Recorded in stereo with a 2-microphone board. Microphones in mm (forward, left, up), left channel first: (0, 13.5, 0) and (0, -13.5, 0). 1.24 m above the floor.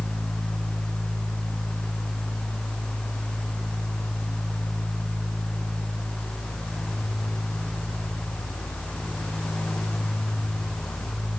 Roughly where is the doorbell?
I don't hear a doorbell.